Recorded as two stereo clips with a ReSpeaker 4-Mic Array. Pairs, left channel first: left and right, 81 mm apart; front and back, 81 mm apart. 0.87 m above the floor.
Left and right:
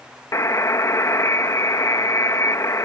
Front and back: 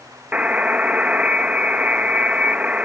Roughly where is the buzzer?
Behind left.